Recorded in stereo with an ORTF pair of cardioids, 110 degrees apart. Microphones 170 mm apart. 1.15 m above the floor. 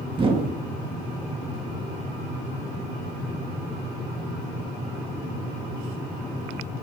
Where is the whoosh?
30° right, 1.8 m.